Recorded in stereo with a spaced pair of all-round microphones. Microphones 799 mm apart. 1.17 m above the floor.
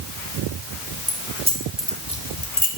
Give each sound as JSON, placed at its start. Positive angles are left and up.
{"t": 1.1, "sound": "keys jangling", "side_deg": -15, "distance_m": 4.0}